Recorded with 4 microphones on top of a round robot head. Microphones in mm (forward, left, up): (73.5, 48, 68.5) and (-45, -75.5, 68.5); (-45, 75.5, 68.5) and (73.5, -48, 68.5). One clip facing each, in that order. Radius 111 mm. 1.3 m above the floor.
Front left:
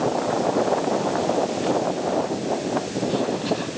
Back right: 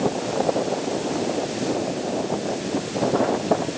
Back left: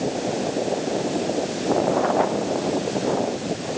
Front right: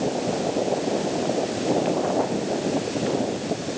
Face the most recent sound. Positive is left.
No sound to turn to.